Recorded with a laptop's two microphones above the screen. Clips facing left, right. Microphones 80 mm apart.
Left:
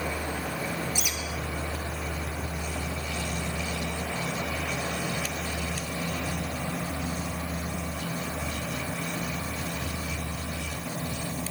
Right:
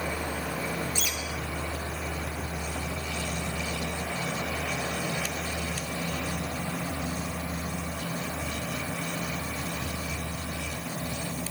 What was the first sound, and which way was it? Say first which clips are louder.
A bird: even; 15° left (ahead or behind).